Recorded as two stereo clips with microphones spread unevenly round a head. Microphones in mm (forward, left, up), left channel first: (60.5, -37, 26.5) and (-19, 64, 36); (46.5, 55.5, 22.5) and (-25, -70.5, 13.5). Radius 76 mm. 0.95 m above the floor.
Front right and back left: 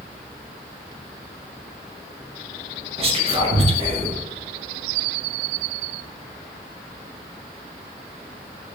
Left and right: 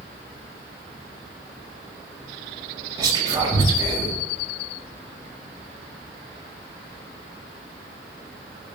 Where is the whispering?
175° left, 1.7 m.